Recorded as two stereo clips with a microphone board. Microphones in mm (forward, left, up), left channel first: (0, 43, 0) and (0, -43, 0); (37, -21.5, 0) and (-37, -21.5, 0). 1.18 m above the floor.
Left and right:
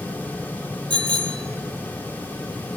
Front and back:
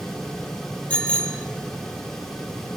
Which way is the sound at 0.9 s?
70° right.